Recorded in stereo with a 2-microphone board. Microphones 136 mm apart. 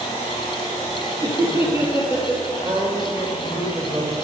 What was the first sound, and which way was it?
Laughter, 40° left (ahead or behind).